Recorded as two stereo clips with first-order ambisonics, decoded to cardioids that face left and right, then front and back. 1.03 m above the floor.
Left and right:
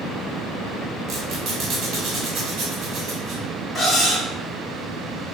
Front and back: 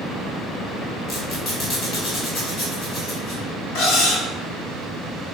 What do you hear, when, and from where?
1.1 s a squeak: 60° right, 1.6 m
3.8 s cutlery clinking: 5° left, 1.3 m